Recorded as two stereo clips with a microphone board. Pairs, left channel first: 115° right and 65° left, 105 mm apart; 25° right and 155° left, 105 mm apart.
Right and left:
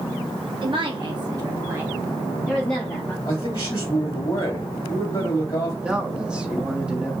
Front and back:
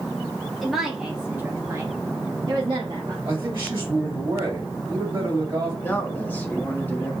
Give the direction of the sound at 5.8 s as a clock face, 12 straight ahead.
12 o'clock.